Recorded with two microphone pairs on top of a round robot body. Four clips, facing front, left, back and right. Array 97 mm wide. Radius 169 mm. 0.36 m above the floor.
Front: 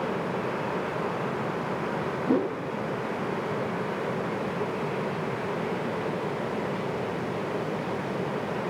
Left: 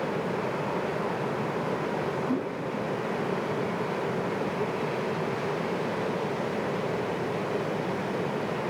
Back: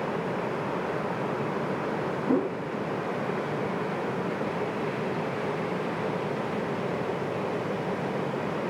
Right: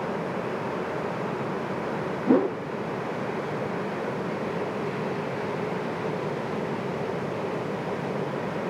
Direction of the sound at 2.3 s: 90° right.